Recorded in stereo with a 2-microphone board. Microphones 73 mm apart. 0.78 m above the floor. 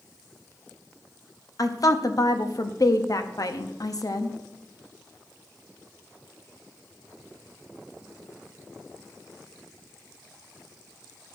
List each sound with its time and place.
1.6 s a woman speaking: 55° left (ahead or behind), 0.7 m